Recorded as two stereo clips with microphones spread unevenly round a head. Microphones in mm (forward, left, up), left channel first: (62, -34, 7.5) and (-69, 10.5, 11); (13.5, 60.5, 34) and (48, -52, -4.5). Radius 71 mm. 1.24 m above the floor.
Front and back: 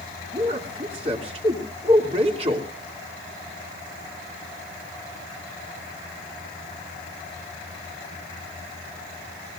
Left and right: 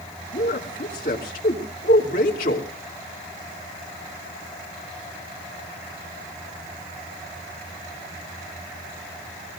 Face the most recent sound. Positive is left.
turn(degrees=110)